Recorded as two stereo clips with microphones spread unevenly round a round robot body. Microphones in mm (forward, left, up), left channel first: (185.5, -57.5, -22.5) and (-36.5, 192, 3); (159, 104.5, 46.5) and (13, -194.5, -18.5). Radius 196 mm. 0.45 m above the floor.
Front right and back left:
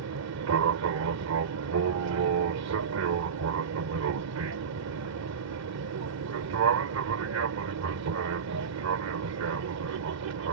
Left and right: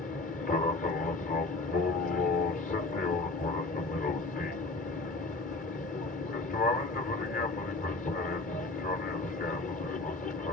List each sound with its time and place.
0.0 s an aircraft: 135° left